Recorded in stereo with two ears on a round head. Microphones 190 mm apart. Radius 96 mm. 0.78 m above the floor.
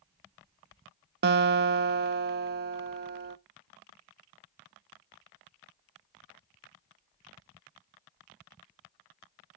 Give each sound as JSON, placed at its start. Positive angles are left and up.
{"t": 1.2, "sound": "a guitar", "side_deg": -50, "distance_m": 0.5}